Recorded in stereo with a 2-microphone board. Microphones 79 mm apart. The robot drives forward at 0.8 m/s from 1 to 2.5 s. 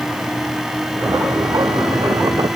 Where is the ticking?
I don't hear ticking.